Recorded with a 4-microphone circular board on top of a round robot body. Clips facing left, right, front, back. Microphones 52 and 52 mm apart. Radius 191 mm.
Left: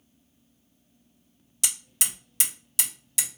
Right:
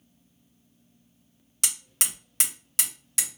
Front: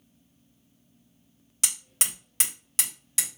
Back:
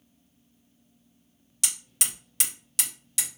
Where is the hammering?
50° right, 2.5 m.